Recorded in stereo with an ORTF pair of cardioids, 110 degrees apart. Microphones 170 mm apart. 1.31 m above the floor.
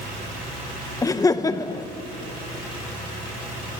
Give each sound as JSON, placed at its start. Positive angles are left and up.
{"t": 1.0, "sound": "laughter", "azimuth_deg": 20, "distance_m": 0.8}